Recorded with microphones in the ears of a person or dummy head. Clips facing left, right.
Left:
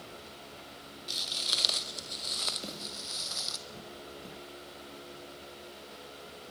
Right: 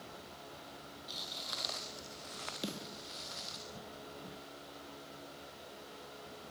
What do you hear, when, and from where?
1.1 s footsteps: 40° left (ahead or behind), 1.9 m; by 3.6 s 70° left (ahead or behind), 3 m
2.6 s a snare drum: 10° right (ahead or behind), 6.5 m